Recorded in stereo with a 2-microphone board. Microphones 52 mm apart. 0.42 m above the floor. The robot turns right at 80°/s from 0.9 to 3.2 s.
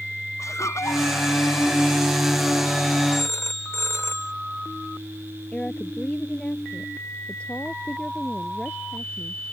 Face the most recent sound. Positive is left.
turn(degrees=20)  # may be behind; listen again after turning